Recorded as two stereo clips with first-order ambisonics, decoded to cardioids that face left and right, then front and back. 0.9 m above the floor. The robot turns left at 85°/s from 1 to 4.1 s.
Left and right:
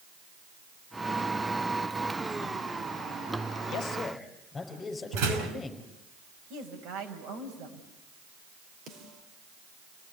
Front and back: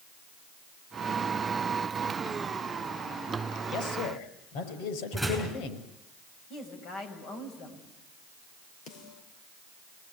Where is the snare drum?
40° right, 4.5 m.